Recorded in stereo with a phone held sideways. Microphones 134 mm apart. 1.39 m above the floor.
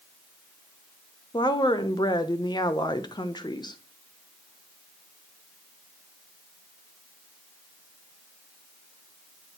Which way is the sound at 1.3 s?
30° left (ahead or behind).